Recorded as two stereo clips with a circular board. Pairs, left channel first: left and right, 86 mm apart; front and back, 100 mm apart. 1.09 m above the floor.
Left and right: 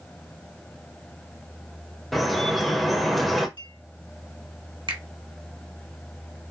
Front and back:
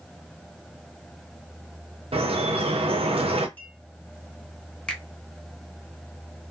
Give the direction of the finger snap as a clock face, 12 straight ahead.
3 o'clock.